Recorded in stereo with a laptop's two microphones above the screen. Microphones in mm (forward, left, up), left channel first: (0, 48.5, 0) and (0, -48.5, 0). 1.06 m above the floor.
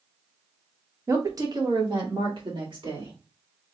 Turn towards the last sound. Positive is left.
turn(degrees=-60)  # may be behind; listen again after turning